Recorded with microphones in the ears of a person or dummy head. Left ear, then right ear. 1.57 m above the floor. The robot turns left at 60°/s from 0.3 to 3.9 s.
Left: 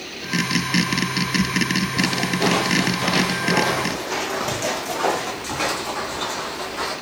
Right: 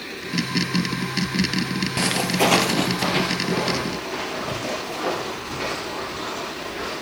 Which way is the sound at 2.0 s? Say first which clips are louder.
Right 3 dB; 35° right (ahead or behind).